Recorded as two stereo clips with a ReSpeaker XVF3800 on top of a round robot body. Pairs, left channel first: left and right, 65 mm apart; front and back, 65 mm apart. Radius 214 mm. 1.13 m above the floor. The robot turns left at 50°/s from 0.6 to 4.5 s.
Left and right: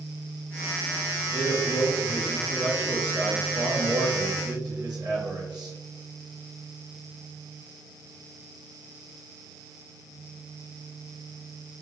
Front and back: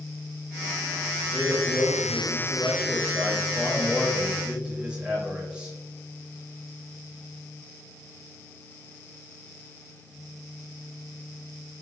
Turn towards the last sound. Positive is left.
turn(degrees=-105)